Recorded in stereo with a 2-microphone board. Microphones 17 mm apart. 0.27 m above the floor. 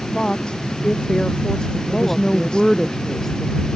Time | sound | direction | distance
0.1 | a woman speaking | 50° left (ahead or behind) | ?
1.9 | a woman speaking | 15° left (ahead or behind) | ?